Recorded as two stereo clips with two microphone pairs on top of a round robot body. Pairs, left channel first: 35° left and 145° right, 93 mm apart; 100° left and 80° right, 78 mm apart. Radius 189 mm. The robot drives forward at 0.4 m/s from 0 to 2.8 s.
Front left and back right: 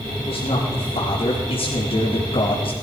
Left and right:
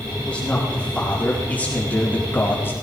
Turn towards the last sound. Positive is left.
turn(degrees=40)